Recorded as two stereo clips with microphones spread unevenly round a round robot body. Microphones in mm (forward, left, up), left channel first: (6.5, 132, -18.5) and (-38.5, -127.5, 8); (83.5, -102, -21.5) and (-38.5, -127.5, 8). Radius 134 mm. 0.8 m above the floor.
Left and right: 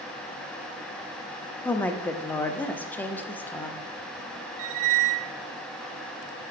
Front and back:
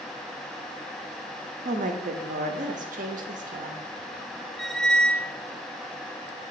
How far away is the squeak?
About 0.6 m.